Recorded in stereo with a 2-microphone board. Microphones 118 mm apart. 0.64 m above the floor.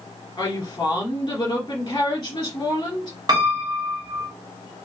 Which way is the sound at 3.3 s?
35° right (ahead or behind).